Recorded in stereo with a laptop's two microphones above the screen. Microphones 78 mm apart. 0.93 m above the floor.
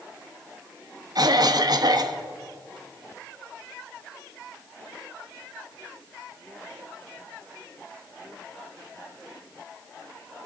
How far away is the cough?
About 1.1 m.